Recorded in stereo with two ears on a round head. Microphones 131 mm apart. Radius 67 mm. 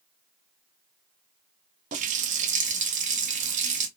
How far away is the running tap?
About 0.6 m.